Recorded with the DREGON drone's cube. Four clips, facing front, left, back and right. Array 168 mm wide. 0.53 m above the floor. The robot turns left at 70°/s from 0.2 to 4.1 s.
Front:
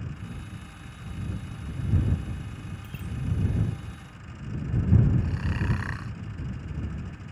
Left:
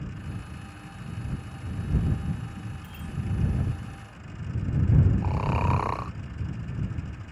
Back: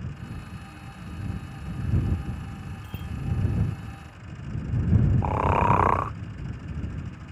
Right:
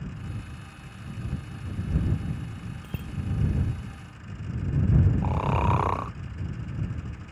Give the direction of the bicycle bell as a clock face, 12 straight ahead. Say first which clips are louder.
Right 2 dB, back 1 dB; 3 o'clock.